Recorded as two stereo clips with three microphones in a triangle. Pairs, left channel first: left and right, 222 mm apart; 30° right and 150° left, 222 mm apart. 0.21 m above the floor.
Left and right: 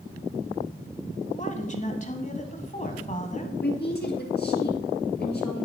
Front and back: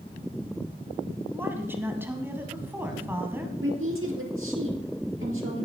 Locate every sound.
1.3 s a woman speaking: 75° left, 1.3 m
3.6 s a woman speaking: 130° left, 3.5 m